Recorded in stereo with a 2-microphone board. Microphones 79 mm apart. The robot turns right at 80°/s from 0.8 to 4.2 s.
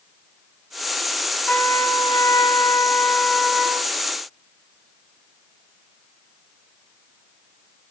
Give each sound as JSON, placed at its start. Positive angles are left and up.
{"t": 1.5, "sound": "a trumpet", "azimuth_deg": 10, "distance_m": 1.1}